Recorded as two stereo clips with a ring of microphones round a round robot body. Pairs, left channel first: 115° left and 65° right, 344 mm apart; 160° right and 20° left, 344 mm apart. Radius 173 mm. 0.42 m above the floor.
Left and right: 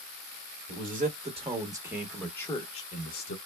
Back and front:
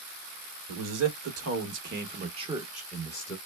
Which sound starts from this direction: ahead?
A man speaking, at 0.7 s.